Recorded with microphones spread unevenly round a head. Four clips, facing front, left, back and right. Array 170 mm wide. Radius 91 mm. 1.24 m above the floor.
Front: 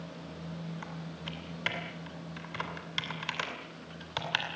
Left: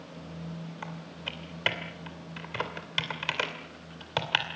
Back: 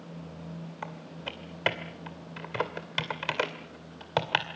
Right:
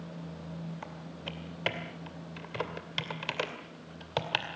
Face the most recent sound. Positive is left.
turn(degrees=-170)